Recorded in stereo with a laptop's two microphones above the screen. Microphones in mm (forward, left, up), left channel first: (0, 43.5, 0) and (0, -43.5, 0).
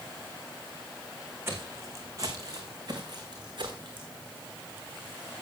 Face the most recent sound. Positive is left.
turn(degrees=-60)  # may be behind; listen again after turning